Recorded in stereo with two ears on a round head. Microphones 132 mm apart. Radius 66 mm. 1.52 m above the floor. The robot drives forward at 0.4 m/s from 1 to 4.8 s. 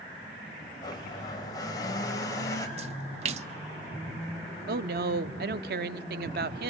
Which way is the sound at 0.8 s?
25° left (ahead or behind).